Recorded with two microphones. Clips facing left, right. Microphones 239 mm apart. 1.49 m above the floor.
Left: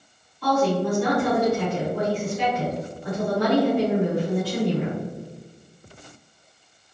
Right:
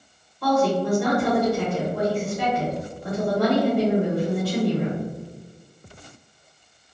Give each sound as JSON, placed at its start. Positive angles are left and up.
{"t": 0.4, "sound": "a woman speaking", "side_deg": -60, "distance_m": 2.0}